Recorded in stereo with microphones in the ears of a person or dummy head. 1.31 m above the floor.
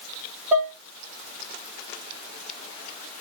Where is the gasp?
No gasp in this recording.